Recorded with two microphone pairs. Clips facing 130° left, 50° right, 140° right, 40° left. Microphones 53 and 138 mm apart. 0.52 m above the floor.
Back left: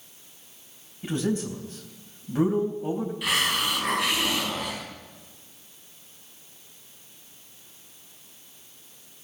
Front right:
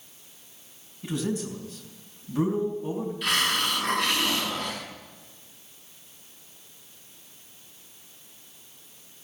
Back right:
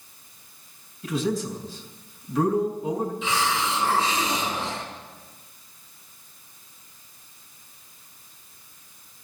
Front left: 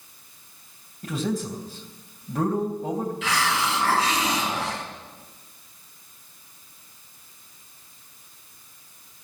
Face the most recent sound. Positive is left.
turn(degrees=45)